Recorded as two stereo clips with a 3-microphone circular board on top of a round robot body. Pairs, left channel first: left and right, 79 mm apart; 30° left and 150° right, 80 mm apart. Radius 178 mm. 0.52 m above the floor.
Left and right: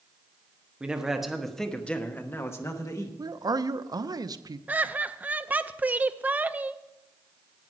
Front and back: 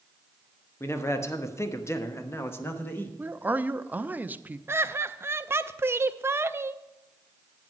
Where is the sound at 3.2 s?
85° right, 0.8 m.